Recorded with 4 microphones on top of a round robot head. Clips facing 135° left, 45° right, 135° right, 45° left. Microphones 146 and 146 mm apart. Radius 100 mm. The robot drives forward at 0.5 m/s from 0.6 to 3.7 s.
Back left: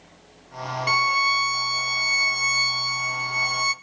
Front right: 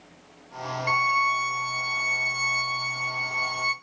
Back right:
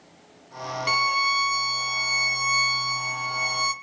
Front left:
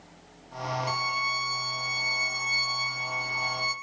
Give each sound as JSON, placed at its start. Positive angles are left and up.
{"t": 0.9, "sound": "a violin", "azimuth_deg": -165, "distance_m": 0.5}